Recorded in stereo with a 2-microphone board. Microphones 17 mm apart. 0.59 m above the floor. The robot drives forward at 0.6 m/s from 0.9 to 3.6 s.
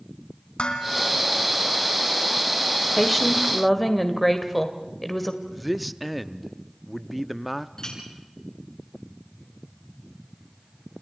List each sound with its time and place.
0.6 s dishes clattering: 70° left (ahead or behind), 3.5 m; by 1.1 s 65° left (ahead or behind), 3.5 m
3.0 s a woman speaking: 5° left (ahead or behind), 1.6 m
5.5 s a man speaking: centre (ahead or behind), 0.6 m
7.8 s a clink: 35° left (ahead or behind), 6 m